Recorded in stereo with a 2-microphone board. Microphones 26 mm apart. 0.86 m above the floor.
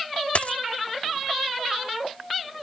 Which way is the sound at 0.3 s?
65° left (ahead or behind).